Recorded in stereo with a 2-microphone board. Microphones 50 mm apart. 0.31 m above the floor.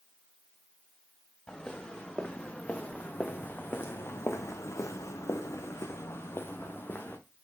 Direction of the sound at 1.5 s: 15° left (ahead or behind).